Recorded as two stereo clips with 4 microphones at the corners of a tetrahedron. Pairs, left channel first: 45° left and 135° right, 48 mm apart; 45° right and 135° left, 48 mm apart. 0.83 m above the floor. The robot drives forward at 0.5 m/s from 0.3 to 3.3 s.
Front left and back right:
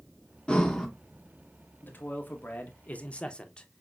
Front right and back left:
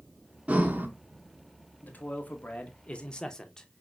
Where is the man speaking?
5° left, 1.1 m; by 3.8 s 15° left, 0.5 m.